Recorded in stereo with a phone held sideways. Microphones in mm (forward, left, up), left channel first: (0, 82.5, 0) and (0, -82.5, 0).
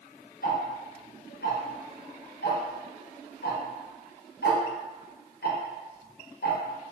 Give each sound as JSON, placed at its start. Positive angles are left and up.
{"t": 0.4, "sound": "ticking", "side_deg": 75, "distance_m": 0.6}